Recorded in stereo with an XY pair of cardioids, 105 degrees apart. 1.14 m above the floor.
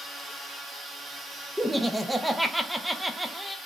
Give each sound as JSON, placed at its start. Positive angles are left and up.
{"t": 1.6, "sound": "laughter", "azimuth_deg": -10, "distance_m": 0.7}